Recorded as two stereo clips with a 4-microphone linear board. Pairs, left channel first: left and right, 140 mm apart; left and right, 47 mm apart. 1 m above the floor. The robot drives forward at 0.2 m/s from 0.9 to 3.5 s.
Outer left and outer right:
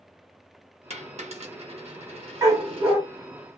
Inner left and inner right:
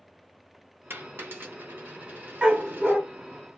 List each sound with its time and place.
0.9 s a dropped coin: 50° right (ahead or behind), 0.9 m; by 3.0 s 40° right (ahead or behind), 1.2 m
2.4 s a dog barking: 20° right (ahead or behind), 0.7 m